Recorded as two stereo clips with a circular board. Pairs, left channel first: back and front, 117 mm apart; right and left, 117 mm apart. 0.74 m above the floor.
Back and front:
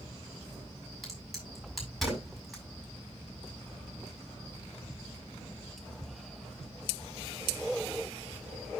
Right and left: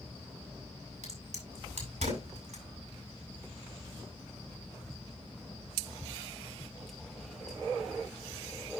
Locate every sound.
1.0 s a crack: 90° left, 6 m